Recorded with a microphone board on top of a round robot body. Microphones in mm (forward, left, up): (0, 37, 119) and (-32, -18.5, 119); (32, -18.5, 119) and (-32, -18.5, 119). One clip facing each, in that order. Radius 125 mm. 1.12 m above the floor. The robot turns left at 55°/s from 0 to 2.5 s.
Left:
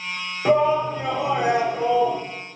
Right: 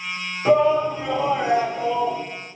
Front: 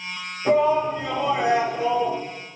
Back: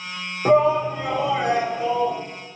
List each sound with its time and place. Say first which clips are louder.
0.5 s a shout: right 2 dB, back 2 dB; 135° left, 3.5 m; by 2.2 s 35° left, 3.5 m